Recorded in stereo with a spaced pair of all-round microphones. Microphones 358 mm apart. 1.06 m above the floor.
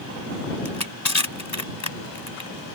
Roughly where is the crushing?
Left.